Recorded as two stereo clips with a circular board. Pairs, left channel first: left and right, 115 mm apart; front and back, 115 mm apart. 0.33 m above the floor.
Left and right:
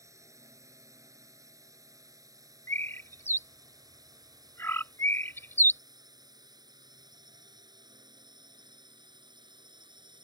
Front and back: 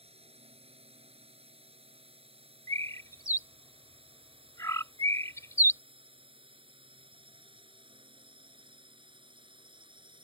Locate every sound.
0.0 s a drone: 150° right; by 10.2 s 140° right
2.7 s a bird: 40° left